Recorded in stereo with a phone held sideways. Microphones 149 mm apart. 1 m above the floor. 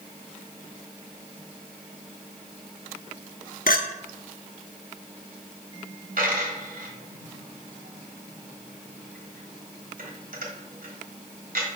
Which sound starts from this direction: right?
A dropped coin, at 6.2 s.